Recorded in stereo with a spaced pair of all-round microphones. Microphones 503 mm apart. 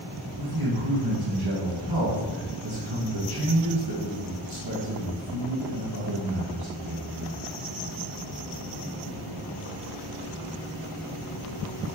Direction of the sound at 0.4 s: 50° right (ahead or behind).